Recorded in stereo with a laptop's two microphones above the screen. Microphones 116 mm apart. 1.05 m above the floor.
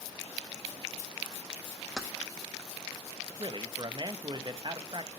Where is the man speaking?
40° right (ahead or behind), 0.8 m.